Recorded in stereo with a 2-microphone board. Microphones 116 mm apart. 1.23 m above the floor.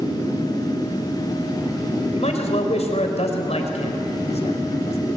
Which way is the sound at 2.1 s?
60° left (ahead or behind).